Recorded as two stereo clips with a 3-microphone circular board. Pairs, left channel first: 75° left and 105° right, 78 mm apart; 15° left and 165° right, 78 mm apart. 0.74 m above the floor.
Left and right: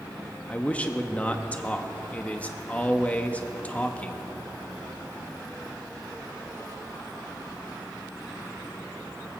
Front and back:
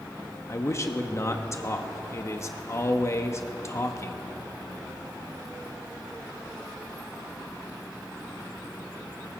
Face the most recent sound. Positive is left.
turn(degrees=15)